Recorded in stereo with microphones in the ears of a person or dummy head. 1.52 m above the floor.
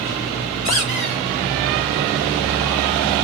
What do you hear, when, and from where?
0.7 s a squeak: 40° left (ahead or behind), 5.5 m